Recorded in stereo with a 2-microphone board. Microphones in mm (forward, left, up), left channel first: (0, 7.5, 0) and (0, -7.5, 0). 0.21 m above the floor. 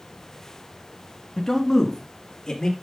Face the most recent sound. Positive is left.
turn(degrees=65)  # may be behind; listen again after turning